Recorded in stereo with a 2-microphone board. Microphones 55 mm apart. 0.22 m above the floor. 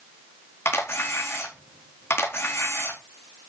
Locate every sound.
0.7 s a camera shutter: 50° left (ahead or behind), 4 m